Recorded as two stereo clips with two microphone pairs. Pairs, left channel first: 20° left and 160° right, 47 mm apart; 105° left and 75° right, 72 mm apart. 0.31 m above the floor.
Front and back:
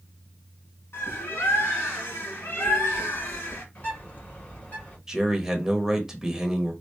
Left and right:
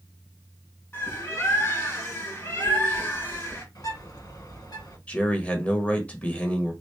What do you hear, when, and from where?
0.9 s a bird: 50° left, 1.9 m
3.8 s a bird: 75° left, 2 m
5.1 s a man speaking: 140° left, 0.9 m